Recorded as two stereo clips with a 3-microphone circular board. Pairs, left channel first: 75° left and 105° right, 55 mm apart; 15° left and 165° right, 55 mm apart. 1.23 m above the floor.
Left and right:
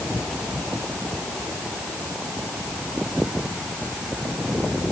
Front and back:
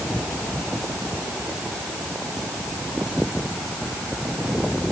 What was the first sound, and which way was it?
Only background noise.